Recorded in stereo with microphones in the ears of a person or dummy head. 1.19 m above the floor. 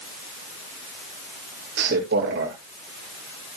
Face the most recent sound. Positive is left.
turn(degrees=-55)  # may be behind; listen again after turning